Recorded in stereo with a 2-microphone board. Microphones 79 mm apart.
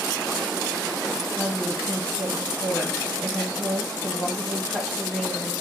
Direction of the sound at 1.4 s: 5° left (ahead or behind).